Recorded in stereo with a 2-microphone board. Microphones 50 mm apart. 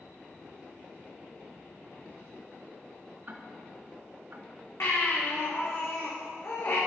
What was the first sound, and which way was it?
Ticking, 45° right (ahead or behind).